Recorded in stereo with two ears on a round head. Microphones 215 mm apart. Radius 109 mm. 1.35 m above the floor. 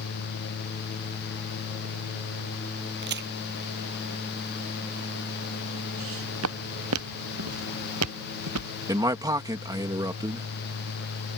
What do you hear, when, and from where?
3.0 s a crack: 45° right (ahead or behind)
6.0 s footsteps: 60° right (ahead or behind); by 8.7 s 80° right
8.9 s a man speaking: 15° right (ahead or behind)